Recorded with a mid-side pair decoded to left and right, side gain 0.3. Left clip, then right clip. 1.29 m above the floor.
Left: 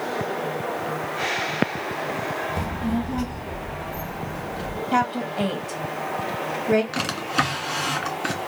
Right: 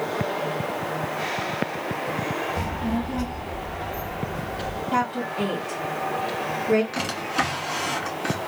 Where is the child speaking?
35° left, 1.0 m; by 4.8 s 75° left, 2 m.